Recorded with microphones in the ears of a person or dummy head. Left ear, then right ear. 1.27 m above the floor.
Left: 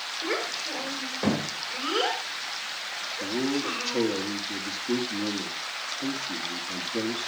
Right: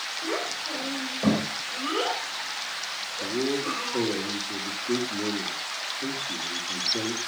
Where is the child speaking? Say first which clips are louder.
Left 2 dB; 35° left (ahead or behind), 4.5 m.